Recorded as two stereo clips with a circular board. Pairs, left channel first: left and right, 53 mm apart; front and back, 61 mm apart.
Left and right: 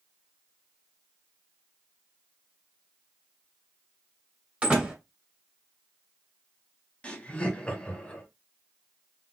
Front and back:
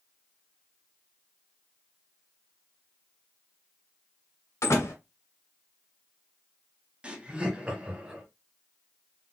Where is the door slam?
25° right, 2 m.